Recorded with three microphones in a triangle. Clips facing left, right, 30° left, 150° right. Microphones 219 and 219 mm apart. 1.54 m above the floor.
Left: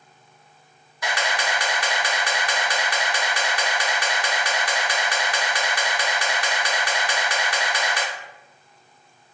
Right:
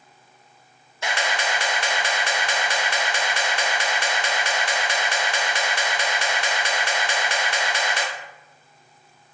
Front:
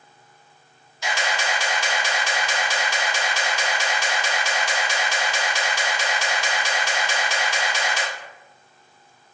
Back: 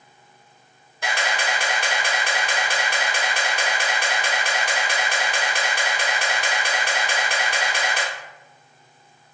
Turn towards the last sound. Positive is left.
turn(degrees=-150)